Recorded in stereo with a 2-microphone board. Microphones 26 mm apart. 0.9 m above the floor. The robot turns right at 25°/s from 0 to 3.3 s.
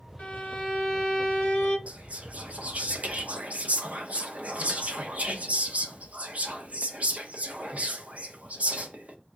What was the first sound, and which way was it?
A violin, 115° left.